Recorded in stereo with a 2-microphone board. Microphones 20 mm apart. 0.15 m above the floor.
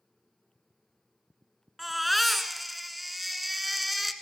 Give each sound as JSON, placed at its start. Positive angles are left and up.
{"t": 1.8, "sound": "a baby crying", "side_deg": -5, "distance_m": 0.9}